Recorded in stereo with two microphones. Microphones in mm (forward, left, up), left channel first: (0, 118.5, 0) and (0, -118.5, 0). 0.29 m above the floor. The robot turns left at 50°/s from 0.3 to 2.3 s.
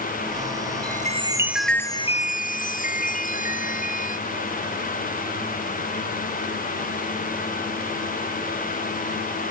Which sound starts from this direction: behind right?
A chime, at 0.8 s.